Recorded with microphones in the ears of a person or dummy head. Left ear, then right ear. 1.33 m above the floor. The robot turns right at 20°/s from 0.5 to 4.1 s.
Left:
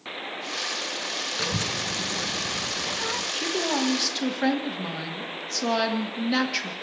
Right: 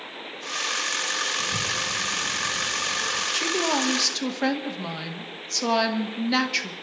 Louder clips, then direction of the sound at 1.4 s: Right 1 dB; 115° left.